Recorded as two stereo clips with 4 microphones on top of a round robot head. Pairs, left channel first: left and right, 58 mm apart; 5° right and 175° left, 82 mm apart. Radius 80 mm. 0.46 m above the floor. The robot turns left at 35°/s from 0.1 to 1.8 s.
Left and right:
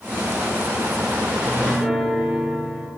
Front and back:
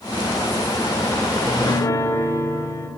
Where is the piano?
5° left, 0.8 m; by 2.9 s 10° right, 0.8 m.